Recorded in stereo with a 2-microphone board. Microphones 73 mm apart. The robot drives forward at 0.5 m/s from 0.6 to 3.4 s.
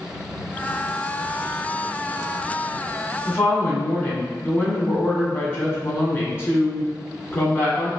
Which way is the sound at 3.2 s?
30° left (ahead or behind).